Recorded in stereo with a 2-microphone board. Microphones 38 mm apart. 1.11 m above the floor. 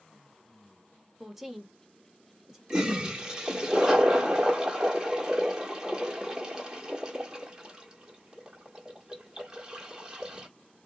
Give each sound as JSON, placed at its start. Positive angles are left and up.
{"t": 1.2, "sound": "a woman speaking", "side_deg": -10, "distance_m": 0.9}
{"t": 2.7, "sound": "a toilet flushing", "side_deg": -15, "distance_m": 1.1}